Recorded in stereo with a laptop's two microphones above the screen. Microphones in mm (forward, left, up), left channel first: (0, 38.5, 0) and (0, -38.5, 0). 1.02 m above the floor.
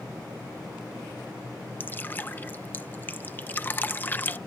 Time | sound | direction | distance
1.8 | dripping | 25° left (ahead or behind) | ?